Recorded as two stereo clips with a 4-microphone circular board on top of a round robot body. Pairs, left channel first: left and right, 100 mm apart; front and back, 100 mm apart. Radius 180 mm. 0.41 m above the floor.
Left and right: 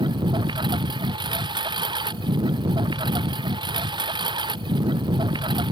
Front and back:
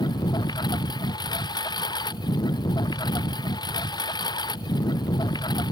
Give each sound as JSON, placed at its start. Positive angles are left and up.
{"t": 0.0, "sound": "a lawn mower", "azimuth_deg": -45}